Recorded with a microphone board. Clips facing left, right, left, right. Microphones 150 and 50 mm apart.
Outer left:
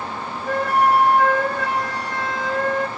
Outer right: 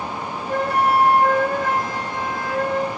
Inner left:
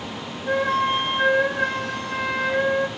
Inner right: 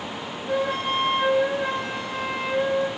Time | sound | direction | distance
0.5 | a flute | 80° left | 9.5 m